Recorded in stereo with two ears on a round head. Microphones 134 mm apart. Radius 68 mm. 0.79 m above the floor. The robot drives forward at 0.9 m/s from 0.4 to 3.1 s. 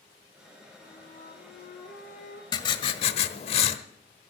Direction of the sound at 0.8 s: 55° left (ahead or behind).